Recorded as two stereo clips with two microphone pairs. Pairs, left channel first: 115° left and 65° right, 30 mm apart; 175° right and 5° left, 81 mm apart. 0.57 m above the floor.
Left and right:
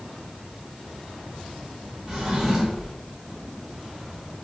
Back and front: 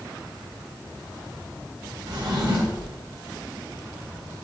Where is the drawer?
Straight ahead, 1.0 m.